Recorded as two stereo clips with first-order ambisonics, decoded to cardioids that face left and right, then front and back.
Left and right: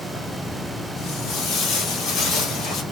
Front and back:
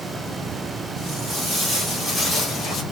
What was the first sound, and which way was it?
Footsteps, 120° left.